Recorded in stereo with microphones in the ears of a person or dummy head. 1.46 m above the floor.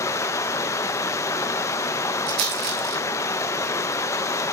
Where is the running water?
15° left (ahead or behind), 0.7 m.